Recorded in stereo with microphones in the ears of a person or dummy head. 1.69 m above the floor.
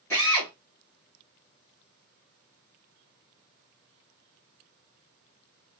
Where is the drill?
10° left (ahead or behind), 0.9 m.